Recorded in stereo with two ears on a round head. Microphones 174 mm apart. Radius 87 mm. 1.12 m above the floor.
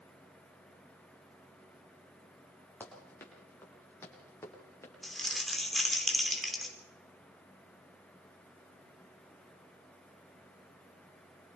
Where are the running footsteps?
10° left (ahead or behind), 7.5 m; by 4.9 s 15° left (ahead or behind), 9 m.